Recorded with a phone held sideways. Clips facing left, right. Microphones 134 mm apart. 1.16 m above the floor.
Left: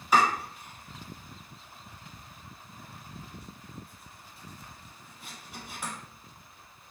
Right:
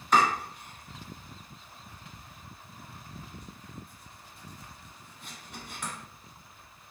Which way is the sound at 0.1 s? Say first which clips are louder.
Even; 5° left (ahead or behind).